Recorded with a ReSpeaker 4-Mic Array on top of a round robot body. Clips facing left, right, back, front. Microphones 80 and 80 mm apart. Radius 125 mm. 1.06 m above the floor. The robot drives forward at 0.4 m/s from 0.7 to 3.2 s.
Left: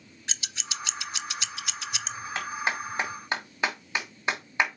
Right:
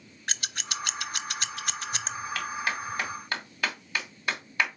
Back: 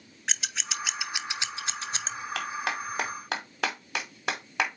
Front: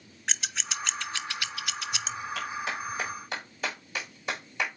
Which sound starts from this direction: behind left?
A clap, at 2.4 s.